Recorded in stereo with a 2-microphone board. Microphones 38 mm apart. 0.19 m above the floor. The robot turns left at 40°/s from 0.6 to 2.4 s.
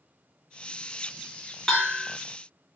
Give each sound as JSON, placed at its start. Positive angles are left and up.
{"t": 1.7, "sound": "a bell", "side_deg": 15, "distance_m": 1.0}